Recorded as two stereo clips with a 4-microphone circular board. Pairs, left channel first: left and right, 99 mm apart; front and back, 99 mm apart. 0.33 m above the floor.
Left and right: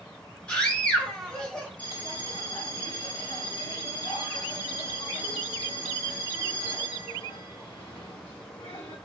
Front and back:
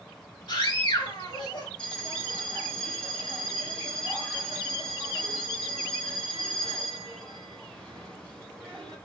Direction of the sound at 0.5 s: 15° left.